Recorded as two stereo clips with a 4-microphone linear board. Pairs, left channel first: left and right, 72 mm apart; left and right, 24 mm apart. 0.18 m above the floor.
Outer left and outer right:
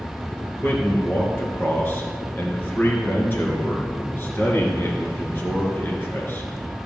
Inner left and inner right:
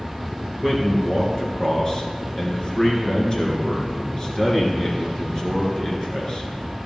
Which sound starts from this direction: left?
A man speaking, at 0.6 s.